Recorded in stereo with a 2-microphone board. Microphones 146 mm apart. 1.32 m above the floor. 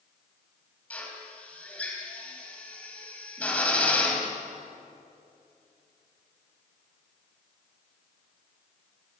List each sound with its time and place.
0.9 s a drill: 10° left (ahead or behind), 3 m